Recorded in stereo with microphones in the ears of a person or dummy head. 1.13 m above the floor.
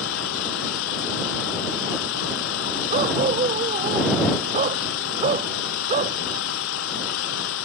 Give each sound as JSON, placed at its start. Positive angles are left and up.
{"t": 0.0, "sound": "an engine running", "side_deg": 80}
{"t": 2.9, "sound": "a dog barking", "side_deg": -40}